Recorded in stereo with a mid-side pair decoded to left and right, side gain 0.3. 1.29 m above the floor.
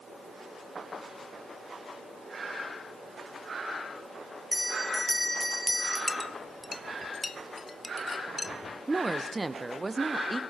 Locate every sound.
4.5 s a bell: 5° left, 2.5 m
6.1 s a clink: 40° left, 0.7 m
8.9 s a woman speaking: 30° right, 0.6 m